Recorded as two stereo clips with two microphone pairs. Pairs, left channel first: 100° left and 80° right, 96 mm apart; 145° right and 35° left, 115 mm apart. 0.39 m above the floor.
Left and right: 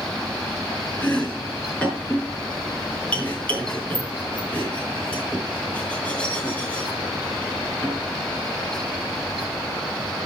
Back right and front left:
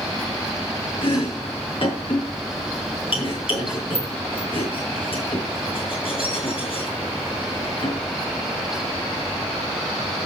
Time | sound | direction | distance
1.0 | chopping | straight behind | 5.5 m